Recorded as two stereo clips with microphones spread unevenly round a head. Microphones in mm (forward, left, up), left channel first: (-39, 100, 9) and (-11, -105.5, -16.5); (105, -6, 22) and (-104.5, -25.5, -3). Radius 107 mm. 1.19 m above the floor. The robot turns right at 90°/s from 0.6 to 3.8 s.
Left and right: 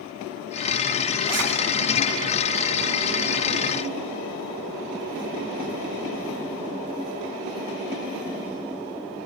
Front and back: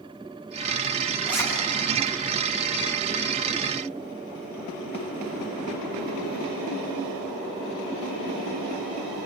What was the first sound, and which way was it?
A zipper, 80° right.